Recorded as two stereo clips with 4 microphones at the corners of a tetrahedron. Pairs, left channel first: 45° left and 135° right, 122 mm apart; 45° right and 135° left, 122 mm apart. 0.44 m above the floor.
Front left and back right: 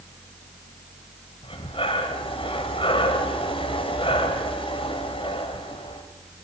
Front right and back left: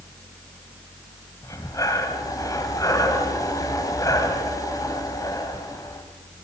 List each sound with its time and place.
1.4 s breathing: 10° left, 2 m